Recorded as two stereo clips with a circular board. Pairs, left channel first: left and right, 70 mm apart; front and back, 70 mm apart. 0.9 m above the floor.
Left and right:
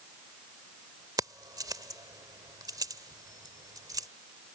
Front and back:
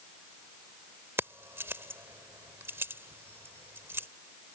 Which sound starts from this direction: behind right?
Keys jangling, at 1.2 s.